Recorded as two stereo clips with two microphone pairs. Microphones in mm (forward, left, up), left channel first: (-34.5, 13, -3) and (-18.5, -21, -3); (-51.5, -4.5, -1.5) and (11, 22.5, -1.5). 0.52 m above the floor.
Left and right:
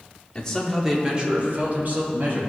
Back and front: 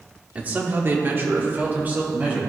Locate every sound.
0.3 s a man speaking: 75° left, 1.1 m; by 2.4 s 40° right, 2.5 m